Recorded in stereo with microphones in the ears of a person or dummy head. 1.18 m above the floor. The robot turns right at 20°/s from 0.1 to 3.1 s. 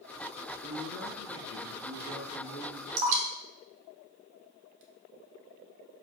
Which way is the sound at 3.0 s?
45° right (ahead or behind).